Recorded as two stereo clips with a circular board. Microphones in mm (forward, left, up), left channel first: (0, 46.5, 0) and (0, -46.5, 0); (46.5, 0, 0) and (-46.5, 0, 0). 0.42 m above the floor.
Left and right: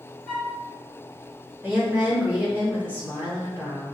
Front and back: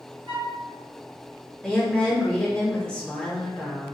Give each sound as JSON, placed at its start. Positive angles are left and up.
{"t": 0.3, "sound": "a flute", "azimuth_deg": 165, "distance_m": 1.8}
{"t": 1.6, "sound": "a woman speaking", "azimuth_deg": -65, "distance_m": 1.2}